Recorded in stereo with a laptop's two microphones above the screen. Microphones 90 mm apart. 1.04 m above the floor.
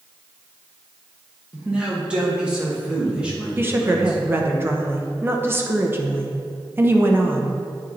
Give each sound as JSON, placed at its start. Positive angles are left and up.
{"t": 1.5, "sound": "a man speaking", "side_deg": -10, "distance_m": 1.5}
{"t": 3.6, "sound": "a woman speaking", "side_deg": -25, "distance_m": 0.8}